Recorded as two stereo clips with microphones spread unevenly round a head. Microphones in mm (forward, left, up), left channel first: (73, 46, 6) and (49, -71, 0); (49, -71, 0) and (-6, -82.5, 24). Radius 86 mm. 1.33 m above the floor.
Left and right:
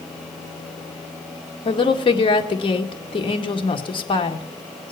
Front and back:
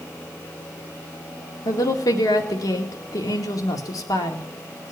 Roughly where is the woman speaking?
Ahead left.